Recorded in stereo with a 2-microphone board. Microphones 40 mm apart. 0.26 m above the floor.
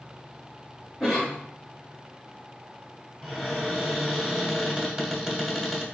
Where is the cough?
10° right (ahead or behind), 1.2 m.